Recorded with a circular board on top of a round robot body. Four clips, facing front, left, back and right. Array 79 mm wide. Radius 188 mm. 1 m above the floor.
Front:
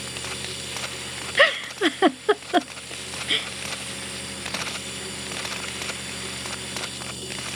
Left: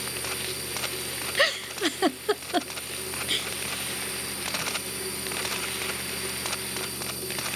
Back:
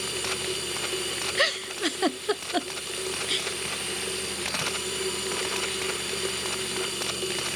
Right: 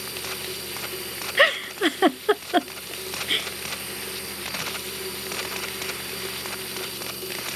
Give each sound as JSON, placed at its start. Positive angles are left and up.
{"t": 0.0, "sound": "running water", "azimuth_deg": -170}
{"t": 1.4, "sound": "a giggle", "azimuth_deg": -40}